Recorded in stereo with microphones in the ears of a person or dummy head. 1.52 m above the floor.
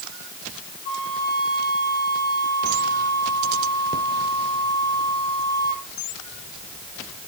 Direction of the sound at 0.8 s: 55° left (ahead or behind).